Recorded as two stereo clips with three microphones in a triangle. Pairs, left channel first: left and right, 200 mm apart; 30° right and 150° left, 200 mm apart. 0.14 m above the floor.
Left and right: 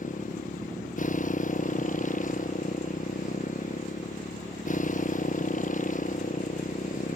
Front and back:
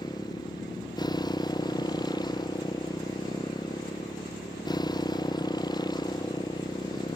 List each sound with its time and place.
0.0 s a motorcycle: 40° left